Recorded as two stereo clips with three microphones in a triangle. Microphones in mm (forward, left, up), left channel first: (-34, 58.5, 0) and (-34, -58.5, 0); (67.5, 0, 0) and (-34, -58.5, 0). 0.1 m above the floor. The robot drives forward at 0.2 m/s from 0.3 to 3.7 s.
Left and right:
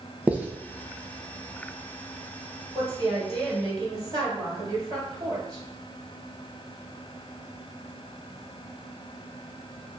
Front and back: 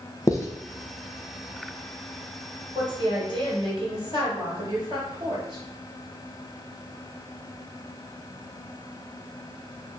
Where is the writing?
20° right, 0.5 m.